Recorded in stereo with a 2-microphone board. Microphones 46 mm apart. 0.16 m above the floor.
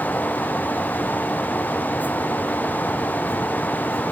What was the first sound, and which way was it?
Only background noise.